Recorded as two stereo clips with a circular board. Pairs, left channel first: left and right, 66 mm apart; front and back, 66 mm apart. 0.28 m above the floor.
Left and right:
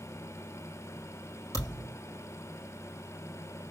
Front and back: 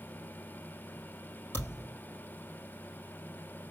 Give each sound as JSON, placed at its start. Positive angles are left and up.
{"t": 1.5, "sound": "a thud", "azimuth_deg": 55, "distance_m": 4.0}